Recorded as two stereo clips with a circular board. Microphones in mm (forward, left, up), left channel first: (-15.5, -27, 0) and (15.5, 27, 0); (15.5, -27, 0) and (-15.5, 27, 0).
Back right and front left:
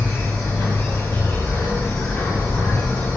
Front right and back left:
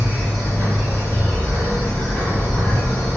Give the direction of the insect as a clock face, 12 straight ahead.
4 o'clock.